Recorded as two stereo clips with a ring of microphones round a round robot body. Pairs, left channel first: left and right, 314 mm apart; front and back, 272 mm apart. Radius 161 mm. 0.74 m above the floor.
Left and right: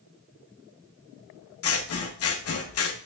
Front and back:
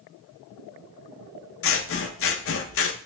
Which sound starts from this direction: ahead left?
Scissors, at 1.6 s.